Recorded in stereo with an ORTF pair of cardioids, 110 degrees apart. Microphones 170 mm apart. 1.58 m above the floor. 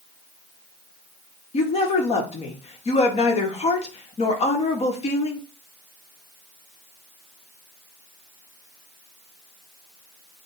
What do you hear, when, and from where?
1.5 s a woman speaking: 40° left, 1.3 m